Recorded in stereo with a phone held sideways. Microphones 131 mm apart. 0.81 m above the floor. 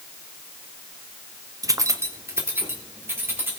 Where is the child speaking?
I don't hear a child speaking.